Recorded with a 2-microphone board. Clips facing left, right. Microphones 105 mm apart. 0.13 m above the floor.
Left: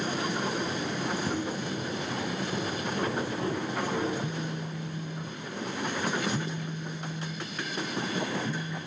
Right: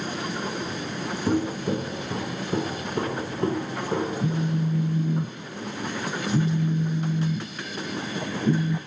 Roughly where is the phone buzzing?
Right.